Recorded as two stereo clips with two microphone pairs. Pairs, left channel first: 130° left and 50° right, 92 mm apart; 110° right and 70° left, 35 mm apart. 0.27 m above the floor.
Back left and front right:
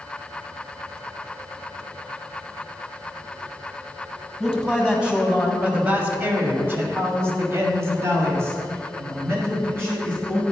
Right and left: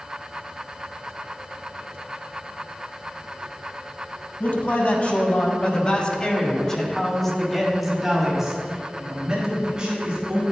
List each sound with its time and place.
4.4 s a man speaking: 135° right, 2.0 m; by 10.4 s 10° left, 2.5 m